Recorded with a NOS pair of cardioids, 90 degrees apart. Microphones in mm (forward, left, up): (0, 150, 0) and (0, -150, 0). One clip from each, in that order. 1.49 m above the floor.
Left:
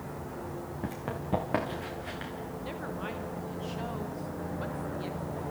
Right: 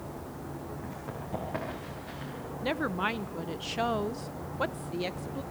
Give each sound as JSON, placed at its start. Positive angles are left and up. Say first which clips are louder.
{"t": 0.8, "sound": "running footsteps", "louder": "left 3 dB", "azimuth_deg": 65, "distance_m": 5.5}
{"t": 2.6, "sound": "a woman speaking", "louder": "right 10 dB", "azimuth_deg": -60, "distance_m": 0.9}